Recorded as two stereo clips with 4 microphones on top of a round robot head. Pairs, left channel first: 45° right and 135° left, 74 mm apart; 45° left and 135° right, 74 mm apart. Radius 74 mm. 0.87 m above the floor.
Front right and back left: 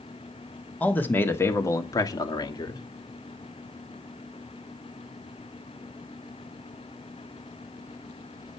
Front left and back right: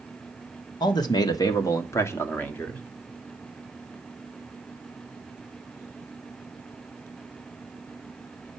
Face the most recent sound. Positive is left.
turn(degrees=-30)